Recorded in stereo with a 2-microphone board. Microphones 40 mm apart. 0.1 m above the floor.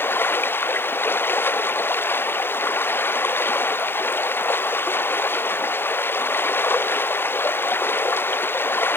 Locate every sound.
0.0 s running water: 60° left (ahead or behind)